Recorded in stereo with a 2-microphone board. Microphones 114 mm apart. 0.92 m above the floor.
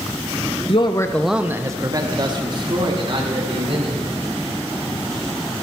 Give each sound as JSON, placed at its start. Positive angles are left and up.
{"t": 0.7, "sound": "a man speaking", "side_deg": 55, "distance_m": 0.6}